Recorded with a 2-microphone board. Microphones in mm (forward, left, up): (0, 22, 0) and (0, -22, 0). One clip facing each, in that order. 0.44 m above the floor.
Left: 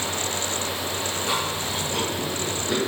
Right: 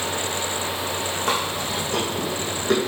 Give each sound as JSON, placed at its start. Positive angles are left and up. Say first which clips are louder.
{"t": 1.3, "sound": "chewing", "louder": "right 3 dB", "side_deg": -65, "distance_m": 4.0}